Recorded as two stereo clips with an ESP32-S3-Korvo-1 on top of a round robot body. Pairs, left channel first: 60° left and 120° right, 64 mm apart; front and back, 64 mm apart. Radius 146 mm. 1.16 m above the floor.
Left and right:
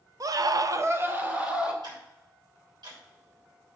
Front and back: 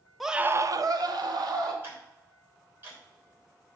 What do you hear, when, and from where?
0.2 s a scream: 90° right, 0.8 m; by 1.7 s 170° left, 2 m
1.8 s ticking: 120° right, 3.5 m